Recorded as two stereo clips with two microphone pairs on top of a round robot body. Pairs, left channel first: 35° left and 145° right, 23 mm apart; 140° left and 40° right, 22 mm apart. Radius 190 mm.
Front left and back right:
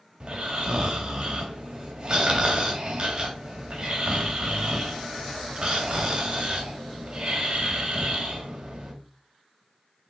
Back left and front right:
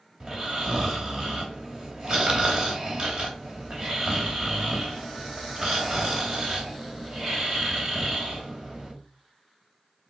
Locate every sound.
0.2 s snoring: 90° right, 2.5 m